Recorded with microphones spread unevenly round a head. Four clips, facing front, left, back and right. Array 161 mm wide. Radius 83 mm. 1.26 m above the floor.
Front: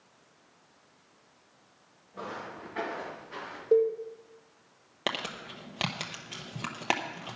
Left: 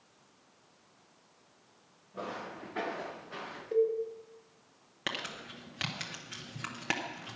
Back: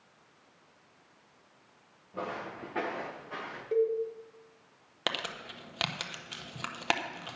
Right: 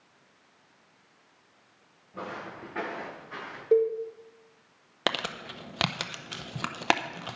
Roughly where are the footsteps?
Behind right.